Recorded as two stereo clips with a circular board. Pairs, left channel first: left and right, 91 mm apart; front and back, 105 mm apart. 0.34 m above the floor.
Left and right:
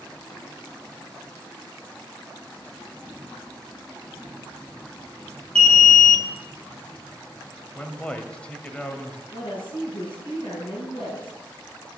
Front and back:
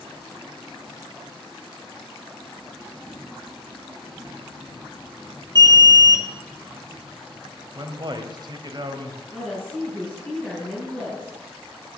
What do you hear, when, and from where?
5.5 s an alarm: 20° left, 1.3 m
7.8 s a man speaking: 165° left, 1.2 m
9.3 s a woman speaking: 85° left, 4.5 m